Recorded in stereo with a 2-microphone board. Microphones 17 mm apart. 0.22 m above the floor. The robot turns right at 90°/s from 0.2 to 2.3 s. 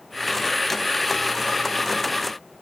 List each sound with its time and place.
Only background noise.